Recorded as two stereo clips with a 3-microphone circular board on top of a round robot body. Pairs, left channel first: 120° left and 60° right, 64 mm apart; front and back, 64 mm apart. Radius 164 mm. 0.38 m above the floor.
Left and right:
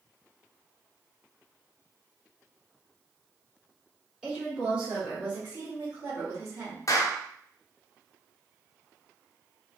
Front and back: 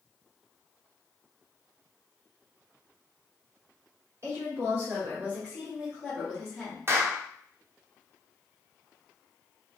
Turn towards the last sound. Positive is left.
turn(degrees=135)